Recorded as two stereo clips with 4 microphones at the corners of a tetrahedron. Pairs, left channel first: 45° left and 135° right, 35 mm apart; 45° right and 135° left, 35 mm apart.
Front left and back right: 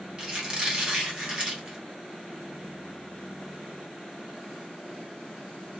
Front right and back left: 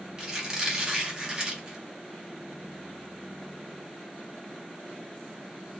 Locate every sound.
0.2 s a squeak: 170° right, 1.1 m